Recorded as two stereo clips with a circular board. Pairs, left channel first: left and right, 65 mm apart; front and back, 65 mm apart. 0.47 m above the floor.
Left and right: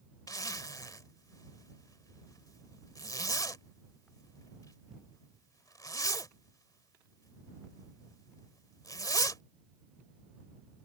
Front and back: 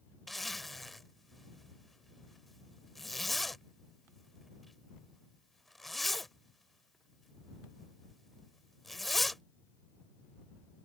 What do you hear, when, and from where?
0.3 s a zipper: 90° left